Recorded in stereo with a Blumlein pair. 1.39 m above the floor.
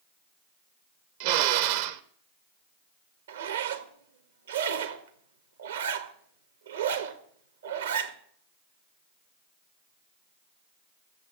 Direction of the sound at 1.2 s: 50° right.